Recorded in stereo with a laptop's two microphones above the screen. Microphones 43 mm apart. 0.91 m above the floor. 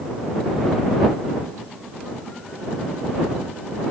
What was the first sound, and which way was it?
Only background noise.